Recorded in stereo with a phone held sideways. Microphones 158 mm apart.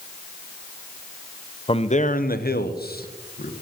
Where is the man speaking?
35° left (ahead or behind), 0.8 m; by 3.5 s 65° left (ahead or behind), 1.4 m.